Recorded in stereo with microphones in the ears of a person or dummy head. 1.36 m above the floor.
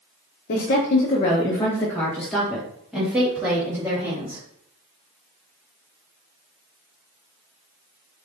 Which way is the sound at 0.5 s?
50° left (ahead or behind).